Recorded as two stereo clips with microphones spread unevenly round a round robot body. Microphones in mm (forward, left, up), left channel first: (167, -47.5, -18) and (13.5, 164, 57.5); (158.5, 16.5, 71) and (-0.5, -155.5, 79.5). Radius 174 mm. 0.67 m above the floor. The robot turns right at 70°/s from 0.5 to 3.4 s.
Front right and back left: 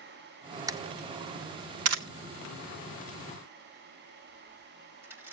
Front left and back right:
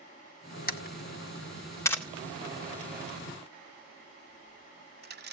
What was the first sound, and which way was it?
A camera shutter, 35° left.